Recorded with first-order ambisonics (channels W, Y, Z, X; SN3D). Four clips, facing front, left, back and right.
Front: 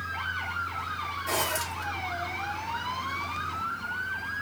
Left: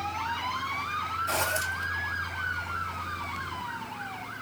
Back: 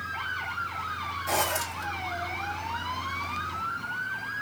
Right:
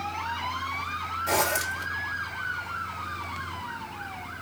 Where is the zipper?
75° right, 2.5 m.